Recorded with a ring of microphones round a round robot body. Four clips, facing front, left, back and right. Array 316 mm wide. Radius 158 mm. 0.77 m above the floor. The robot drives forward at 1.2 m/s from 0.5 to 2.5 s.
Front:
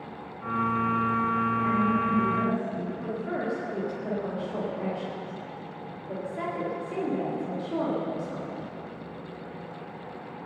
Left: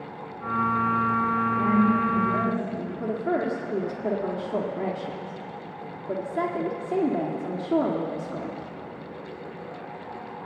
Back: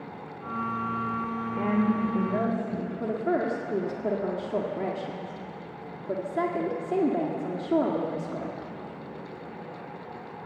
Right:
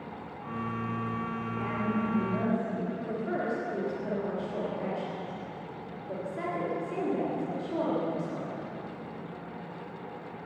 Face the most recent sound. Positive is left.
turn(degrees=130)